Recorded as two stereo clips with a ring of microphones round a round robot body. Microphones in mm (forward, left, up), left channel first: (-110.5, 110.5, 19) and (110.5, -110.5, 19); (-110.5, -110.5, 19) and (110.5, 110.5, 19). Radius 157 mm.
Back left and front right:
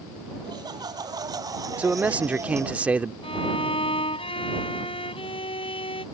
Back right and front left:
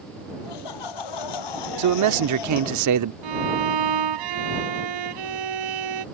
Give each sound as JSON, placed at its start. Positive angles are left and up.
{"t": 0.4, "sound": "laughter", "azimuth_deg": -125}
{"t": 1.8, "sound": "a man speaking", "azimuth_deg": 40}
{"t": 3.2, "sound": "a violin", "azimuth_deg": 60}